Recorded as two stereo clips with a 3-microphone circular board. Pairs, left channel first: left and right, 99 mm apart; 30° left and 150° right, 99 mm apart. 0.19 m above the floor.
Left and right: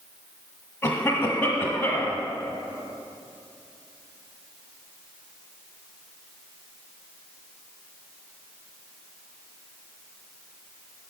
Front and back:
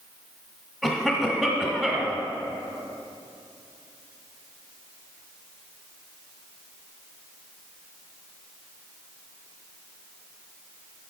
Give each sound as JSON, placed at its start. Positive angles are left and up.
{"t": 0.8, "sound": "a cough", "azimuth_deg": 125, "distance_m": 1.1}